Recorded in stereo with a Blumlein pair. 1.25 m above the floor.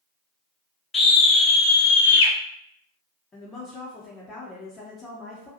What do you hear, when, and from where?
0.9 s a scream: 15° left, 0.9 m; by 2.3 s 65° left, 0.6 m
3.3 s a woman speaking: 15° left, 0.7 m